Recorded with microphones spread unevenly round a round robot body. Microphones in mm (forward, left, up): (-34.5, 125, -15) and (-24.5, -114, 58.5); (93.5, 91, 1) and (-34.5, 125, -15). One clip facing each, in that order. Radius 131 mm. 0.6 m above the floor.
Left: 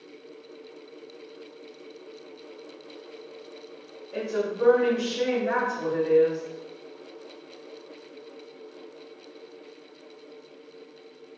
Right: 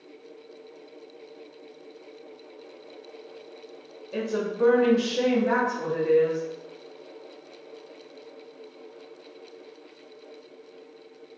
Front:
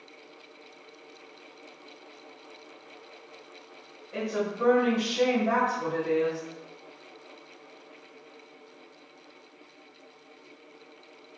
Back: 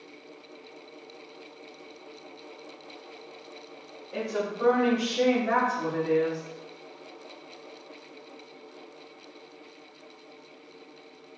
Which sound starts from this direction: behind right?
A woman speaking, at 4.1 s.